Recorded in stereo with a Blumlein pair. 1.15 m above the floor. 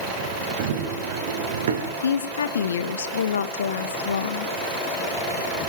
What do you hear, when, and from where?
0.6 s running footsteps: 55° right, 5 m; by 1.9 s 65° right, 5 m
2.0 s a woman speaking: 65° left, 1.3 m